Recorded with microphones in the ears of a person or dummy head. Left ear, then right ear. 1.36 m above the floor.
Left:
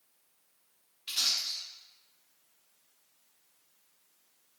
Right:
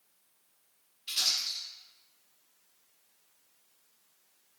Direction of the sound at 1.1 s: 20° left (ahead or behind).